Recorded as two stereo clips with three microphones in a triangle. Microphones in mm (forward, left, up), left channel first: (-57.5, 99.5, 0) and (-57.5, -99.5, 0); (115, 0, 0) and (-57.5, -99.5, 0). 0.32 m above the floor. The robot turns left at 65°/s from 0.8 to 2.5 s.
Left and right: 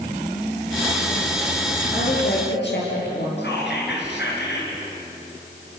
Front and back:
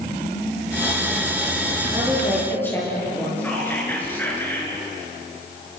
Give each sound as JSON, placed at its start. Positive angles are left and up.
{"t": 1.9, "sound": "a woman speaking", "azimuth_deg": 145, "distance_m": 7.5}
{"t": 3.4, "sound": "whispering", "azimuth_deg": 110, "distance_m": 5.0}